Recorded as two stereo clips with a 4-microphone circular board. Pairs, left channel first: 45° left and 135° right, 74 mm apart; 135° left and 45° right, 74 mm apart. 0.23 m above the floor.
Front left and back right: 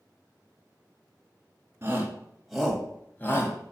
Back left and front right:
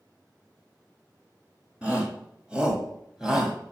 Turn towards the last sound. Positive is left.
turn(degrees=35)